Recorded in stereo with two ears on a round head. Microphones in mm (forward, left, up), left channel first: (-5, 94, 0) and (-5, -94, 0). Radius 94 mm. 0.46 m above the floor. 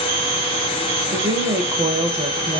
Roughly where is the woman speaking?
Centre.